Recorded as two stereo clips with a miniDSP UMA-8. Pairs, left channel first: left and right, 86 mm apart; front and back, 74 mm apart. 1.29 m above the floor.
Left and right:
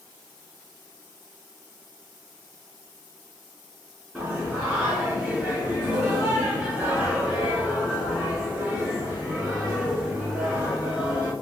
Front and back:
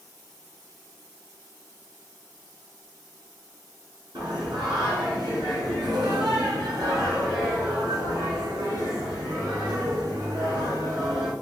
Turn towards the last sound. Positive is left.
turn(degrees=-170)